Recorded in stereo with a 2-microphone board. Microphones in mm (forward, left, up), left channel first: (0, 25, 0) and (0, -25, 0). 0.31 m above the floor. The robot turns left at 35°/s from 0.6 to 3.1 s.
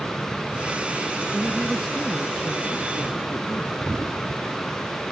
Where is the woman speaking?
170° right; by 3.8 s 130° left.